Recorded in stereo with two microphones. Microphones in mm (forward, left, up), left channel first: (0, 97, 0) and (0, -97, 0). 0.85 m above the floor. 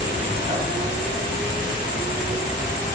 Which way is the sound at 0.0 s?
40° right (ahead or behind).